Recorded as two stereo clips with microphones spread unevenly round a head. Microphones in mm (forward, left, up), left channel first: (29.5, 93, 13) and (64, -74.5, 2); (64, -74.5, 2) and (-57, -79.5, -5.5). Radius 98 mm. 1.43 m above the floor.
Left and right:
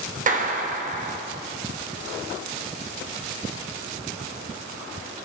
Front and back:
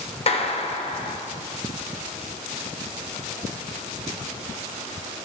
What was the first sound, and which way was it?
A clap, 35° right.